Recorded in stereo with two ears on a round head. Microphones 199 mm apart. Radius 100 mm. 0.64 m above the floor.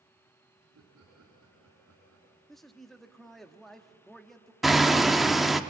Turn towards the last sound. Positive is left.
turn(degrees=0)  # may be behind; listen again after turning